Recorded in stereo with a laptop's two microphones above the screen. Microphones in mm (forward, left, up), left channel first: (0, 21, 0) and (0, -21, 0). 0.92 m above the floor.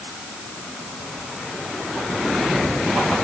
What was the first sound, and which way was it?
Only background noise.